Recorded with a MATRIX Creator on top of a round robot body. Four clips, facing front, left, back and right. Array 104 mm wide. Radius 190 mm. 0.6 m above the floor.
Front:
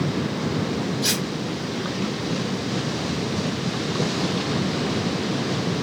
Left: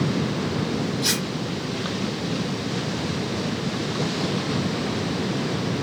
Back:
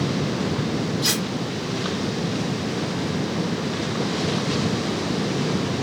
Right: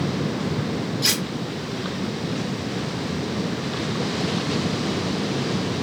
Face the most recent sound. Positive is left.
turn(degrees=-95)